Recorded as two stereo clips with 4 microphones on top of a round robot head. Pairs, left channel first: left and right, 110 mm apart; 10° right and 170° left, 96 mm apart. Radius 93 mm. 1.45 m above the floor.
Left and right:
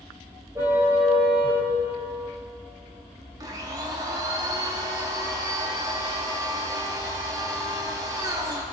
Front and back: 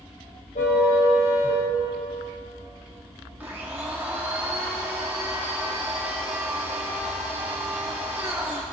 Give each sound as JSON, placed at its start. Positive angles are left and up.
{"t": 0.6, "sound": "a car horn", "azimuth_deg": -20, "distance_m": 4.0}
{"t": 3.4, "sound": "a blender", "azimuth_deg": -120, "distance_m": 1.0}